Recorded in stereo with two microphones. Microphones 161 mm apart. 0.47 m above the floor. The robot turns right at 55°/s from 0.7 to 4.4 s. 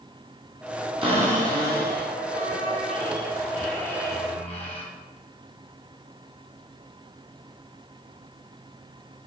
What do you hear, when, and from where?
1.0 s a cupboard door: 145° right, 3 m; by 4.8 s 40° left, 3 m